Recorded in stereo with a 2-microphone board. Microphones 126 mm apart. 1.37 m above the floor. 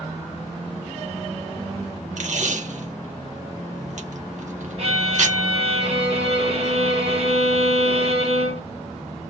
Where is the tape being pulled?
70° right (ahead or behind), 1.7 m.